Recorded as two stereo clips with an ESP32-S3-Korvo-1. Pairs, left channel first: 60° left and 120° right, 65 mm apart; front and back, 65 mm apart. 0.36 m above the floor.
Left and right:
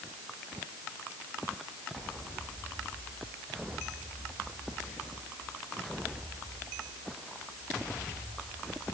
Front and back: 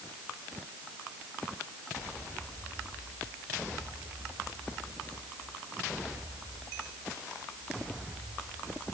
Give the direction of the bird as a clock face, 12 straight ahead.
No bird in this recording.